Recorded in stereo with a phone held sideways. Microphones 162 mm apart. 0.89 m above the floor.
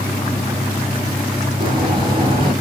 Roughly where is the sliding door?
Right.